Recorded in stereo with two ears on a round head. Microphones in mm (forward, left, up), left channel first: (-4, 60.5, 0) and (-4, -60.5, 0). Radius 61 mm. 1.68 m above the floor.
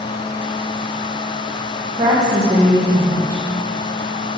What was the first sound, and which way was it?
A woman speaking, 30° right (ahead or behind).